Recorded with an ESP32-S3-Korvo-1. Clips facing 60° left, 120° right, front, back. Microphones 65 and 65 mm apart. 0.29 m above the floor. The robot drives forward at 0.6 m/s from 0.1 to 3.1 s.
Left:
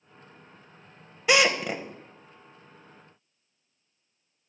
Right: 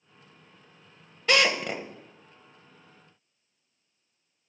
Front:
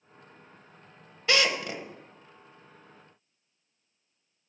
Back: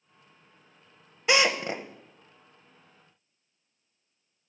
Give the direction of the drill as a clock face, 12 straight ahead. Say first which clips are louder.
Left 2 dB, back 2 dB; 8 o'clock.